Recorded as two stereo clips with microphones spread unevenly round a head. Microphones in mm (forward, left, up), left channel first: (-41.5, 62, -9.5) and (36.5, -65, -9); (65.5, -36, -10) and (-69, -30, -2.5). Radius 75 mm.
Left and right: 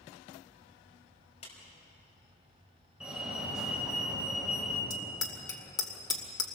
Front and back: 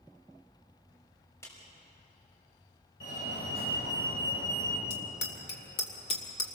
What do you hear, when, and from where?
1.4 s a clap: 70° left, 5 m
3.0 s a fire alarm: 25° left, 7.5 m
4.9 s a bicycle bell: 55° left, 2 m